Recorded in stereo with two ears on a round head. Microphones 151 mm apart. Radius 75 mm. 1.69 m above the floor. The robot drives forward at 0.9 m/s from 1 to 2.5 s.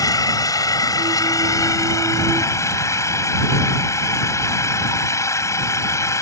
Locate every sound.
0.0 s an engine running: 20° left (ahead or behind)